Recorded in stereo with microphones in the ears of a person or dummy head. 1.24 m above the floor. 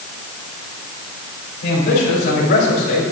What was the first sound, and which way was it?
A man speaking, 65° left (ahead or behind).